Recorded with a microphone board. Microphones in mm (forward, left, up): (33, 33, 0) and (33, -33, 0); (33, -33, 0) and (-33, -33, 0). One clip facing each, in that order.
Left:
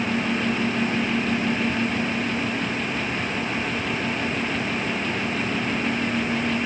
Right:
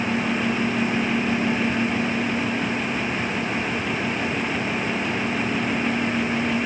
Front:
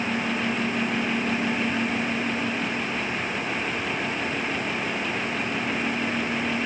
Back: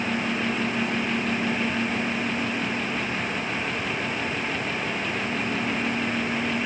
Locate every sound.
Only background noise.